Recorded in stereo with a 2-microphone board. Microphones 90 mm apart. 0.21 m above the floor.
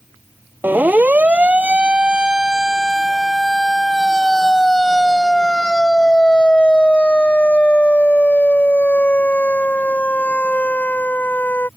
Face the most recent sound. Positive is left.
turn(degrees=20)  # may be behind; listen again after turning